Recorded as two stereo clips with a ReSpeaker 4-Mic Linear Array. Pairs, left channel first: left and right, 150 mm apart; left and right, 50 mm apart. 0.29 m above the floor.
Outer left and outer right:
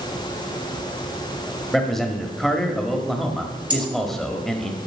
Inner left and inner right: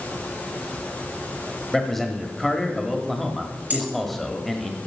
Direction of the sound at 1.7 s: Centre (ahead or behind).